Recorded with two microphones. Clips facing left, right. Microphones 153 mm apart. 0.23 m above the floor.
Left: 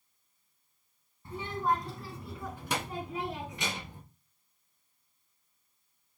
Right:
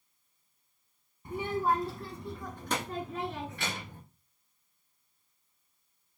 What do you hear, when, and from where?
1.2 s a child speaking: 15° right (ahead or behind), 0.9 m; by 4.0 s 20° left (ahead or behind), 2 m